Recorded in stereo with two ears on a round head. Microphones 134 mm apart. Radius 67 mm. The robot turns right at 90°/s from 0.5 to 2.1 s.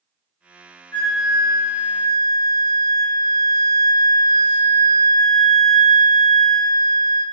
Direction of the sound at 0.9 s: 170° left.